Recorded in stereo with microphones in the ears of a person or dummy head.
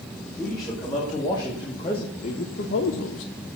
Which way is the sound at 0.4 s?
15° left (ahead or behind).